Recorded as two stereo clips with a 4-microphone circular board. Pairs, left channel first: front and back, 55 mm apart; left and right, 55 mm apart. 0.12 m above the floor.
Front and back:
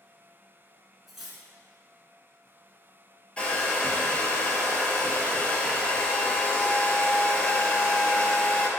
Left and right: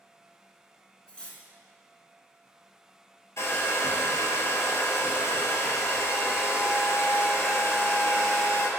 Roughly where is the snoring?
No snoring in this recording.